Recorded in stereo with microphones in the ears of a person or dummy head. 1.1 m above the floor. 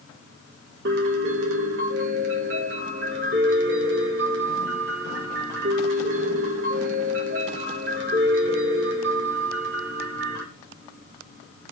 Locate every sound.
0.8 s a piano: 60° right (ahead or behind), 1.1 m